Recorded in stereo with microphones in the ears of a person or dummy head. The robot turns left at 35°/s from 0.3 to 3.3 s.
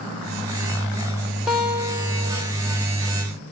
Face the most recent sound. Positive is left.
turn(degrees=-70)